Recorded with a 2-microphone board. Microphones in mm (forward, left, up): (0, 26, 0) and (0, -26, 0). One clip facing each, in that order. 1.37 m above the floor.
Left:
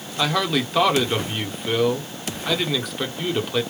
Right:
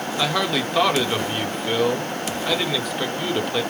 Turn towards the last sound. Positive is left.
turn(degrees=0)  # may be behind; listen again after turning